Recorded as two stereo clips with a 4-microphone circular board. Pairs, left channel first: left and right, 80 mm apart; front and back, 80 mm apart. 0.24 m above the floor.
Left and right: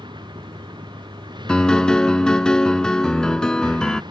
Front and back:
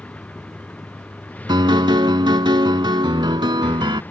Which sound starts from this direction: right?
A vehicle, at 0.0 s.